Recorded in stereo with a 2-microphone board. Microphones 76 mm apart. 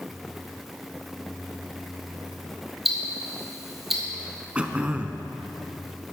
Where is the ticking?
5° right (ahead or behind), 2 m.